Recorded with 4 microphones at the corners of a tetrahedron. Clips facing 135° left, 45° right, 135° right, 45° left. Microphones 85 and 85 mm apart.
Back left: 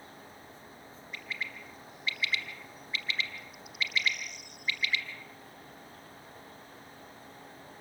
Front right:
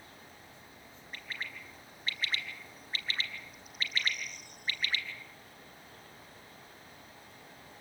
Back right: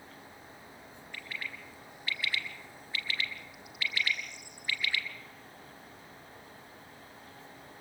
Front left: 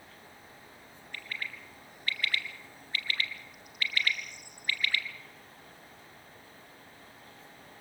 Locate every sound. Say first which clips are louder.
1.1 s a bird: back left 2 dB, front left 1 dB; 5° left, 1.8 m